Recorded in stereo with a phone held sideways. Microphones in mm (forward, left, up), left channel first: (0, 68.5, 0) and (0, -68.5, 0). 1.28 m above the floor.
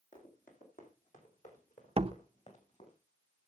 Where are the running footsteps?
75° left (ahead or behind), 4 m; by 3.0 s 55° left (ahead or behind), 4 m.